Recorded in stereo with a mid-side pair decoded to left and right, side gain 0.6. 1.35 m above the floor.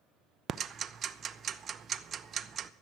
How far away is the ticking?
About 0.7 m.